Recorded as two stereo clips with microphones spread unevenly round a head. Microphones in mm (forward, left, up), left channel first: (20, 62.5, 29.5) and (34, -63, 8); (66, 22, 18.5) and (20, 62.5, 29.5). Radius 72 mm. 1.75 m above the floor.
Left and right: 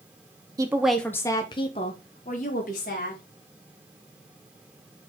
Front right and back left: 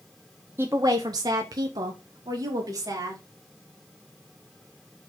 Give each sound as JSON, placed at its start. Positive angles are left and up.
{"t": 0.6, "sound": "a woman speaking", "azimuth_deg": -155, "distance_m": 0.8}